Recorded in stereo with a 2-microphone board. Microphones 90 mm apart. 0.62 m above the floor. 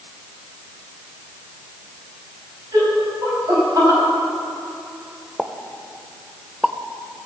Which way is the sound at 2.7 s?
45° right (ahead or behind).